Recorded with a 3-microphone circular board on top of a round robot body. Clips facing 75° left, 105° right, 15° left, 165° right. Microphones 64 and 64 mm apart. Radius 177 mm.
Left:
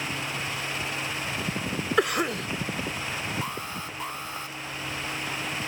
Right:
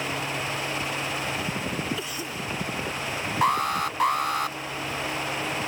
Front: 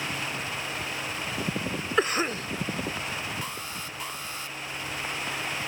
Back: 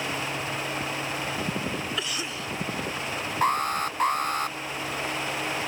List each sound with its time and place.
2.0 s a cough: 60° left
3.4 s an alarm: 125° right